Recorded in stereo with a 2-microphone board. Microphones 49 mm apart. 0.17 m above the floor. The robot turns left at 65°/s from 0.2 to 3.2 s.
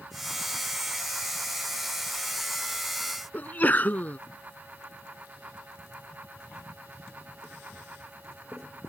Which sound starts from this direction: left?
A sneeze, at 3.3 s.